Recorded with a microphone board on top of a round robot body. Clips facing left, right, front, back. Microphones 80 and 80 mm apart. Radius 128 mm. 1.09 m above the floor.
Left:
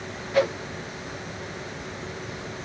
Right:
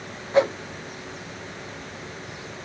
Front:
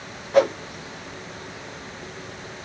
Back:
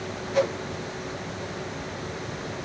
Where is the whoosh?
25° right, 0.7 m.